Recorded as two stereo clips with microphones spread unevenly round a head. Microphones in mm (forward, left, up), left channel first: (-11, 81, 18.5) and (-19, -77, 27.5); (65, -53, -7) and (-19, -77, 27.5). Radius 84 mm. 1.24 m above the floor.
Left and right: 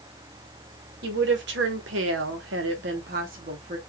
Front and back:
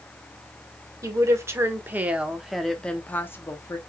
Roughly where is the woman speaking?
Right.